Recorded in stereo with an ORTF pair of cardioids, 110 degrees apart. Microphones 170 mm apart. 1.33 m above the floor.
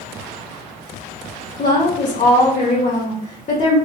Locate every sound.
1.6 s a woman speaking: 40° left, 0.8 m